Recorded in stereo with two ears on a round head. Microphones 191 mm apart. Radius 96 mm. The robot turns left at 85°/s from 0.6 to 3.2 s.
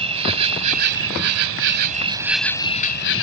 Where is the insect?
30° right; by 3.2 s 110° left.